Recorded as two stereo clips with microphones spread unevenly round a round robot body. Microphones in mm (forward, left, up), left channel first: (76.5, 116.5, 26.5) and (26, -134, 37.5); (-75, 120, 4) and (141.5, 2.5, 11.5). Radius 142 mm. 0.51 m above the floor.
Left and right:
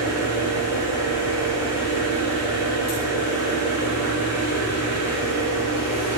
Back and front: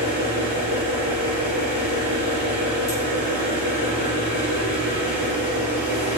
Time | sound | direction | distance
0.0 | an engine running | 145° left | 6 m